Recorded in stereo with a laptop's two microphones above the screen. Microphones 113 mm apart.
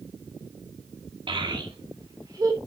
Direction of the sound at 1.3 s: 45° right (ahead or behind).